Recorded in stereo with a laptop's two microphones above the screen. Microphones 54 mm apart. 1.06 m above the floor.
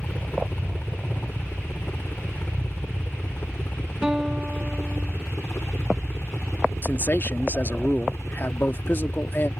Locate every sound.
0.0 s a helicopter: 35° left (ahead or behind); by 9.6 s 60° left (ahead or behind)
4.0 s a guitar: 15° right (ahead or behind)
6.8 s a man speaking: 40° left (ahead or behind)